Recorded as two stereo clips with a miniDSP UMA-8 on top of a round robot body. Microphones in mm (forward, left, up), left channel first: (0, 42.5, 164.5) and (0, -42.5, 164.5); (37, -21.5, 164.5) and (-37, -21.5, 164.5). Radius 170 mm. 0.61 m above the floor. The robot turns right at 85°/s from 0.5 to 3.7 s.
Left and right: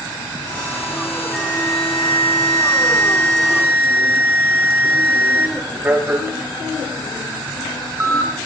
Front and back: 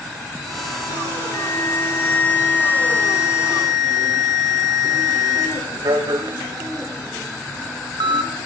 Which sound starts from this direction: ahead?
An alarm, at 1.3 s.